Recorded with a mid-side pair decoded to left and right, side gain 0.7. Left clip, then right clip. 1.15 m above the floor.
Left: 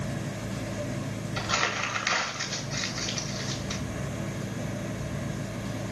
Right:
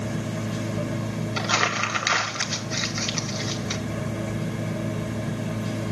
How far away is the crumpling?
About 1.8 m.